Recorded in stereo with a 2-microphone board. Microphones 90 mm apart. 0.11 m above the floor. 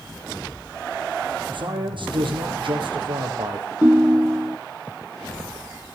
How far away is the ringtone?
About 0.5 m.